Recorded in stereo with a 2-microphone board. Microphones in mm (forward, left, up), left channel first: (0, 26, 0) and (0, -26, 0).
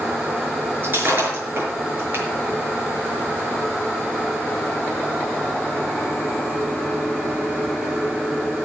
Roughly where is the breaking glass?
Right.